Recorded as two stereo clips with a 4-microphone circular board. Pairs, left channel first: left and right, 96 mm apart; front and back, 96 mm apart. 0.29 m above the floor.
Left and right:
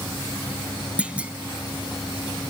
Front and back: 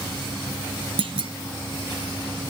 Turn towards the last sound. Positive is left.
turn(degrees=-165)